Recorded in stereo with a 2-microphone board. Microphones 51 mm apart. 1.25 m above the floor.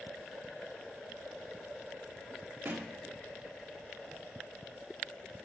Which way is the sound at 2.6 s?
50° right (ahead or behind).